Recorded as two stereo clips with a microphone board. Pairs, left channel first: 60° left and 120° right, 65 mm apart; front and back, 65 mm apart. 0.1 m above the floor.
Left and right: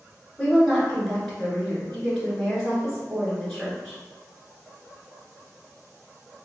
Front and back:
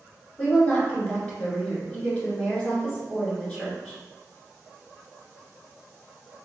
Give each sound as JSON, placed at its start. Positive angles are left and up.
{"t": 0.4, "sound": "a woman speaking", "azimuth_deg": -15, "distance_m": 1.3}